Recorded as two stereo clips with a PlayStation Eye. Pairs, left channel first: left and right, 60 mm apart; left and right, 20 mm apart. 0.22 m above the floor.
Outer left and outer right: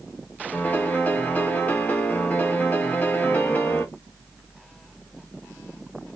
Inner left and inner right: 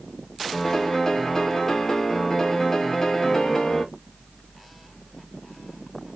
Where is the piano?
25° left (ahead or behind), 0.6 m.